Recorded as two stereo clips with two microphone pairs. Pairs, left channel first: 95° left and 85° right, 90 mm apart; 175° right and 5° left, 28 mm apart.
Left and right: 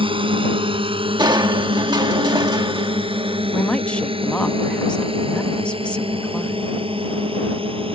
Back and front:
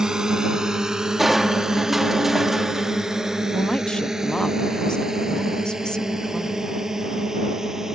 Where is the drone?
65° right; by 8.0 s 70° right.